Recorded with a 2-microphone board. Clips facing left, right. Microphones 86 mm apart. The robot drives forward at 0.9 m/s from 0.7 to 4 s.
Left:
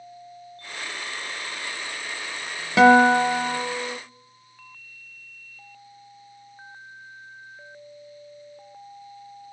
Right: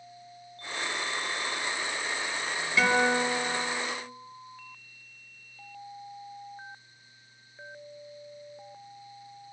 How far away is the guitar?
About 0.8 m.